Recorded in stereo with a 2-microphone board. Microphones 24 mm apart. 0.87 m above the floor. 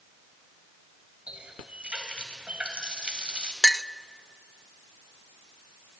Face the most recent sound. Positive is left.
turn(degrees=10)  # may be behind; listen again after turning